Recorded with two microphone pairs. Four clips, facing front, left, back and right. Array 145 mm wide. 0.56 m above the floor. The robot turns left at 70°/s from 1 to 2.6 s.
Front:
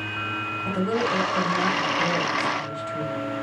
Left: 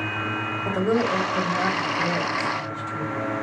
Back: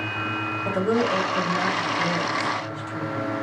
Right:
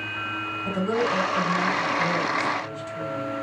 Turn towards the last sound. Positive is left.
turn(degrees=30)